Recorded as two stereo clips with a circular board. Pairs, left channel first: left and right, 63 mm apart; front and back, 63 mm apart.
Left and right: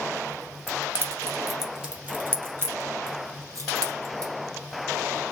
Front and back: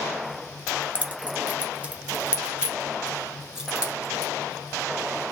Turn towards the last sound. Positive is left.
turn(degrees=-100)